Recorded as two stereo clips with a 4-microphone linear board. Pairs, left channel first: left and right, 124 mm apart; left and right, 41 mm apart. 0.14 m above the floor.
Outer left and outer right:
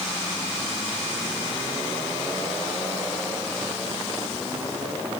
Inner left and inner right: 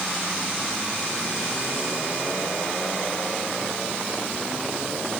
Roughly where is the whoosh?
I don't hear a whoosh.